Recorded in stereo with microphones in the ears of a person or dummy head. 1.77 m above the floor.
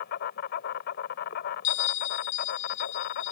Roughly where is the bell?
Left.